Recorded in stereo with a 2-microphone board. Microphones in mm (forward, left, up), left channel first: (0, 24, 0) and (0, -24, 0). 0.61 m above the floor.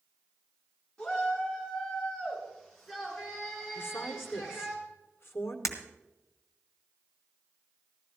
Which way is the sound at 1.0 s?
15° left (ahead or behind).